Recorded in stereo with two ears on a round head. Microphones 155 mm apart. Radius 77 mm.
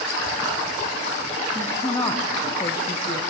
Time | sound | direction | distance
1.6 | a woman speaking | 10° left (ahead or behind) | 1.1 m